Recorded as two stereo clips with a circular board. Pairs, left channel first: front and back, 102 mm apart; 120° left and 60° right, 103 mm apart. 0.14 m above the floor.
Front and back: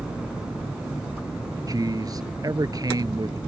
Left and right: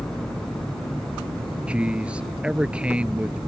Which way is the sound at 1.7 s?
135° right.